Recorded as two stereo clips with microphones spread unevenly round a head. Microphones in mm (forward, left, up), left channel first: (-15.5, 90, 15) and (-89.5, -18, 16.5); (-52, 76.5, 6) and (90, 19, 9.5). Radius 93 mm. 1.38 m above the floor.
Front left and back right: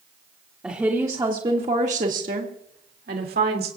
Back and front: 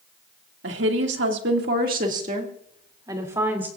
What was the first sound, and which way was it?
A woman speaking, 40° right.